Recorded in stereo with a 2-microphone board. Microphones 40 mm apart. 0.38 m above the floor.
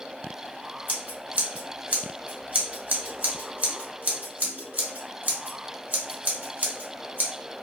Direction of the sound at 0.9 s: 50° right (ahead or behind).